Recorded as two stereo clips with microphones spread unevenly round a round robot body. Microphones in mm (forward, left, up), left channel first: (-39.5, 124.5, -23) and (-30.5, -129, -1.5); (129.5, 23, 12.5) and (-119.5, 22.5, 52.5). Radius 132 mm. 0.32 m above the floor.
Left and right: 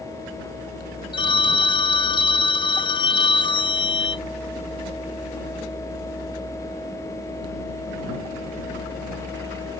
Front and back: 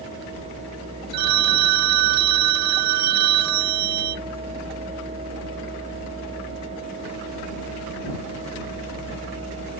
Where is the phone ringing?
160° left.